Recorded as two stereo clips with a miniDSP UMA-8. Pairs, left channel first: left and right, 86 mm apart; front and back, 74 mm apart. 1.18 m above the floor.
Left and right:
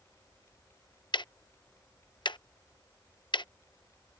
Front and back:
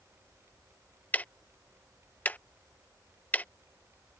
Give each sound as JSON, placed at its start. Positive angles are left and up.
{"t": 1.1, "sound": "ticking", "azimuth_deg": 70}